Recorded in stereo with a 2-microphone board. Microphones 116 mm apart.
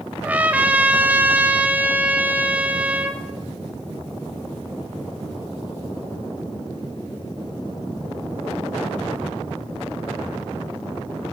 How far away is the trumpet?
About 1.2 m.